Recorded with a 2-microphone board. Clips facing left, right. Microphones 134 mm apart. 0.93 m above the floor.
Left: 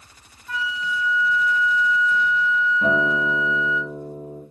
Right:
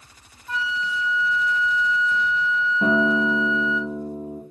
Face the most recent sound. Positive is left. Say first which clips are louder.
# right 4 dB
turn(degrees=-35)  # may be behind; listen again after turning